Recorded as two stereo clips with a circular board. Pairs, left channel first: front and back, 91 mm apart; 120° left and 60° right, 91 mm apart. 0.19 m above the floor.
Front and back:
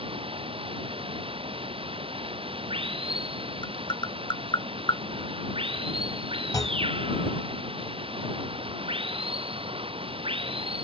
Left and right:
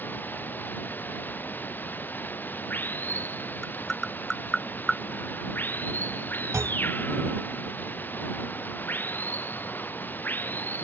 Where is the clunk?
15° right.